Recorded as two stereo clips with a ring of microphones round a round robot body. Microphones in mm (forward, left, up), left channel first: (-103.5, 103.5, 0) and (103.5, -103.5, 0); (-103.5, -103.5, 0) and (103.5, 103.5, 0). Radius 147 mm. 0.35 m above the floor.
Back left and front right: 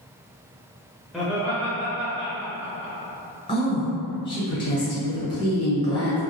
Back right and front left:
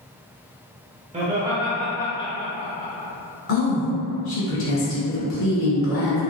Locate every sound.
1.1 s laughter: 45° left, 0.9 m; by 2.9 s 80° right, 1.5 m
3.5 s a woman speaking: 160° right, 1.5 m